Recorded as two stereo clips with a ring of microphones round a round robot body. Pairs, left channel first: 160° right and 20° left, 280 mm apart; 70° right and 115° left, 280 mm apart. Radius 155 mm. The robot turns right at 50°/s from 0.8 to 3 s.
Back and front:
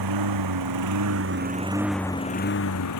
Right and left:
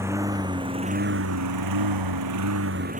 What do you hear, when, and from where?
0.0 s a lawn mower: 30° left; by 3.0 s straight behind